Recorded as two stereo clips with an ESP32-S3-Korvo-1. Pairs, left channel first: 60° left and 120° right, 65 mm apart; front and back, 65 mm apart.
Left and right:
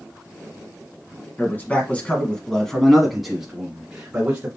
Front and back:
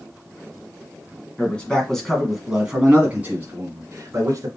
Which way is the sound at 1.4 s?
50° left.